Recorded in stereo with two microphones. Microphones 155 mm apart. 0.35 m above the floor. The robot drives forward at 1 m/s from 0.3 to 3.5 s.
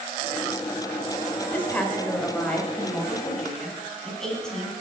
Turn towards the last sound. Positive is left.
turn(degrees=5)  # may be behind; listen again after turning